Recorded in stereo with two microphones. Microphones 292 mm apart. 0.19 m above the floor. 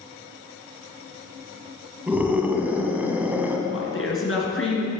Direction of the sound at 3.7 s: 45° left (ahead or behind).